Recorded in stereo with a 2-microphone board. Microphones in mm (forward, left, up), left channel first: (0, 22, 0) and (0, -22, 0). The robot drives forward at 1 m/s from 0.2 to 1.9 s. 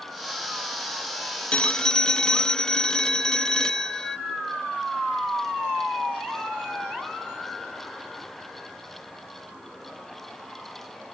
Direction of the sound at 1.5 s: 25° left (ahead or behind).